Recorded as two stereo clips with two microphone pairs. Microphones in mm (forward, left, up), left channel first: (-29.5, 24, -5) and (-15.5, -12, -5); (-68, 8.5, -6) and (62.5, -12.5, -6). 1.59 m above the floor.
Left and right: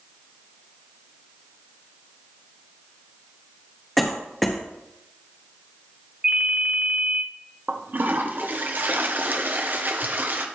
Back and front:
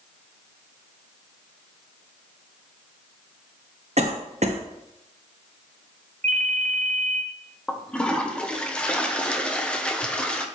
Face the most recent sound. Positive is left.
turn(degrees=-105)